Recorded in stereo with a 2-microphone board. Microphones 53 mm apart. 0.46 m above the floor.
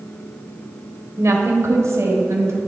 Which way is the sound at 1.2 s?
60° right (ahead or behind).